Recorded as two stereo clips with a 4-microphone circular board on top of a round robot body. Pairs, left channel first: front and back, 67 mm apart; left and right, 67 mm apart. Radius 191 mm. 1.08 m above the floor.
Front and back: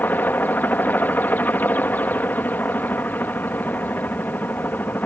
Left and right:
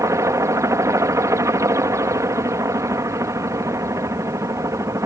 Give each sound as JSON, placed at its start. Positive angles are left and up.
{"t": 0.0, "sound": "a helicopter", "azimuth_deg": -60}